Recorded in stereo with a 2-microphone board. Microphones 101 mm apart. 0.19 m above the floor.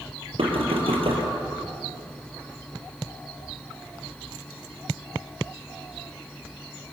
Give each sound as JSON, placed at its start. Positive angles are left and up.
{"t": 0.4, "sound": "knocking", "side_deg": -60, "distance_m": 5.0}